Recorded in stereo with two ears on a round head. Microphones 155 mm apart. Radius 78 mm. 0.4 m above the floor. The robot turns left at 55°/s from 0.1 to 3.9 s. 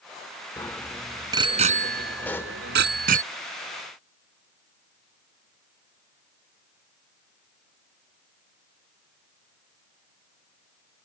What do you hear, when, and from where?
0.6 s a bicycle bell: 20° left (ahead or behind); by 3.2 s 50° right (ahead or behind)
2.2 s a pop: 10° left (ahead or behind); by 2.6 s 20° left (ahead or behind)